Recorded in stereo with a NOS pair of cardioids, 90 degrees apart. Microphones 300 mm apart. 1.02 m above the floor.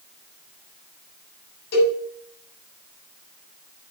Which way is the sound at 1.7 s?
65° left.